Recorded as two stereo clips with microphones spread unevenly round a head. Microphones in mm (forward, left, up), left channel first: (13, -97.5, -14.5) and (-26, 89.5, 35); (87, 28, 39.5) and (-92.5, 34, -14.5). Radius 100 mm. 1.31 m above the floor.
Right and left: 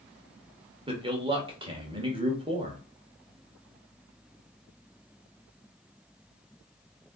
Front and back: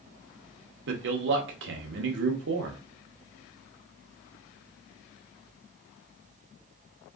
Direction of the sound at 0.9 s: 170° left.